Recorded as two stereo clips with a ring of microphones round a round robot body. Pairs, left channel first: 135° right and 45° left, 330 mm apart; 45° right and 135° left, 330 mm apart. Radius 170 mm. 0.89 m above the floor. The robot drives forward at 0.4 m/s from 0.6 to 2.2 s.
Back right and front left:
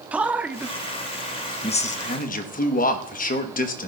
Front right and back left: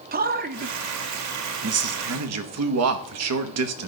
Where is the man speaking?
125° left, 0.7 m; by 3.9 s 165° left, 1.0 m.